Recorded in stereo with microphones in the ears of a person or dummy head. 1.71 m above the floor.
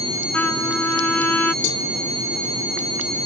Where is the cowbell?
65° left (ahead or behind).